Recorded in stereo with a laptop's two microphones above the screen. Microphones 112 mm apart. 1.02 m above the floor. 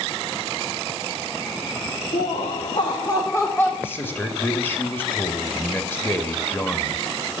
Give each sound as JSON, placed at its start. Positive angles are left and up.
{"t": 2.1, "sound": "laughter", "side_deg": 85, "distance_m": 1.3}
{"t": 3.8, "sound": "a man speaking", "side_deg": 20, "distance_m": 1.8}